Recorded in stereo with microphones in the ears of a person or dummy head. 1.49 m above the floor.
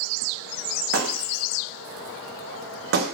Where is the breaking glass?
65° right (ahead or behind), 5.5 m.